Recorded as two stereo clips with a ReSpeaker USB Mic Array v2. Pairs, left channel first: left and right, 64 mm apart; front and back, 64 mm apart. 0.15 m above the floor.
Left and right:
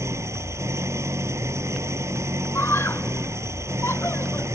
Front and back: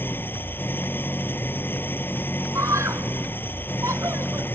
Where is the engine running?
55° right.